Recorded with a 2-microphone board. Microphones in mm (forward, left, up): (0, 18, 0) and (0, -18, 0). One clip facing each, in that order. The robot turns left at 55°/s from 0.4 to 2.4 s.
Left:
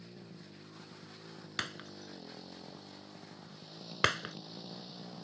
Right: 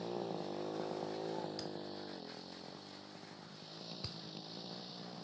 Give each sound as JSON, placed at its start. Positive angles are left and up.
{"t": 0.0, "sound": "a motorcycle", "azimuth_deg": -70}
{"t": 1.6, "sound": "breaking glass", "side_deg": 65}